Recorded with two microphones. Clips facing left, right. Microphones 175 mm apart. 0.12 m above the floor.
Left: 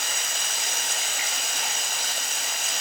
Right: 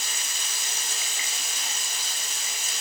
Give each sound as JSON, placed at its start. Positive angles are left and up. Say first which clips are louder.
{"t": 0.0, "sound": "running water", "louder": "left 5 dB", "side_deg": 75, "distance_m": 1.2}